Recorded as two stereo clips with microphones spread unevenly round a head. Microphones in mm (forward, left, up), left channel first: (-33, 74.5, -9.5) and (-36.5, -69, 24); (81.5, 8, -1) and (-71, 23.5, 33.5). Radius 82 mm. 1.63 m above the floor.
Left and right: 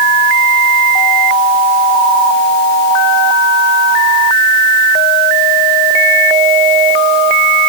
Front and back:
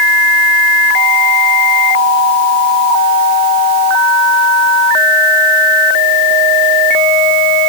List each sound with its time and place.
Only background noise.